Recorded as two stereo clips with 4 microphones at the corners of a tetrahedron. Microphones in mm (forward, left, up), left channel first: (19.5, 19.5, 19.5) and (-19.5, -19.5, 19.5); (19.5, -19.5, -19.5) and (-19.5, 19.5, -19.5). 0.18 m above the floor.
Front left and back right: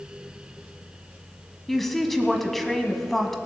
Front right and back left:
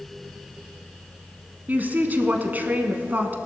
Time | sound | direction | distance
1.7 | a woman speaking | 130° left | 1.1 m